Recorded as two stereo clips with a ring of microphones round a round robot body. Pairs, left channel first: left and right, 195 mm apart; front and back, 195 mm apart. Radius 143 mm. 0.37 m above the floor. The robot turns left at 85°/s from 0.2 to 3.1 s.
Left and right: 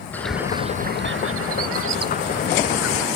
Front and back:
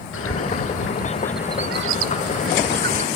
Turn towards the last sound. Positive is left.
turn(degrees=120)